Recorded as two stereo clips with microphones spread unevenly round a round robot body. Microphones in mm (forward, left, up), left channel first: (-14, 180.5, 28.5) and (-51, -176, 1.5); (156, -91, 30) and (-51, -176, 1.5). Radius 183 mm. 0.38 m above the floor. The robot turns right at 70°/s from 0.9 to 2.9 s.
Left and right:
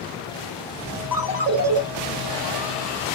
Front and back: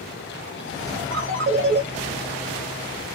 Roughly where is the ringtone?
Behind.